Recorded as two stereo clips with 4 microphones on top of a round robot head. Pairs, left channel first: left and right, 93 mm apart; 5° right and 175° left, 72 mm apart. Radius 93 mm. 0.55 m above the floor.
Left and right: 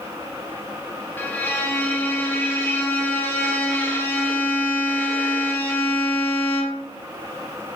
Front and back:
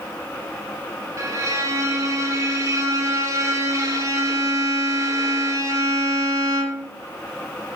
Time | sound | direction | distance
1.2 | a violin | 155° left | 1.7 m